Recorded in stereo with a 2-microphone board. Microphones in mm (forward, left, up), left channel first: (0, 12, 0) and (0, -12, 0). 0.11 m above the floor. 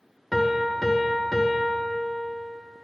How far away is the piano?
About 0.5 m.